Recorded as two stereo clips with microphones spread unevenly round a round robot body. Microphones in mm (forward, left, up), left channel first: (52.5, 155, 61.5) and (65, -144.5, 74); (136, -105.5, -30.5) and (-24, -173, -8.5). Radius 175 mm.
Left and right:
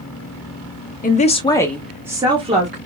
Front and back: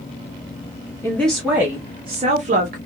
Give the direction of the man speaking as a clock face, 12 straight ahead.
10 o'clock.